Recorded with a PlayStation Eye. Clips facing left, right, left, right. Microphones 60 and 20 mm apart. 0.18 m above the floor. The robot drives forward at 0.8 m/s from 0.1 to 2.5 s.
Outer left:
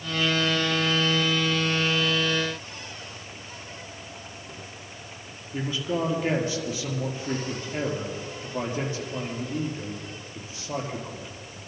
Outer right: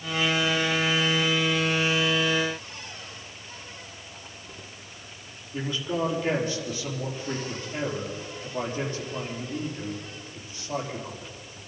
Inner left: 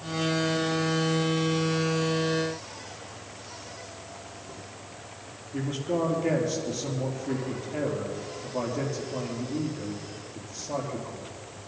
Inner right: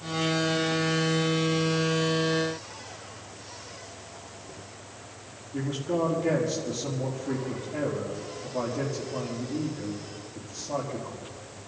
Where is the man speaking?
20° left (ahead or behind), 5 m.